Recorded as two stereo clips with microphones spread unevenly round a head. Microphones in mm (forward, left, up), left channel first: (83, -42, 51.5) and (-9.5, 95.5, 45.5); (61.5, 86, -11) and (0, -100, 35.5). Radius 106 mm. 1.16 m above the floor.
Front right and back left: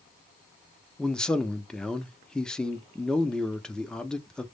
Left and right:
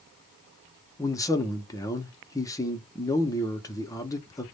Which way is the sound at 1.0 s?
30° left.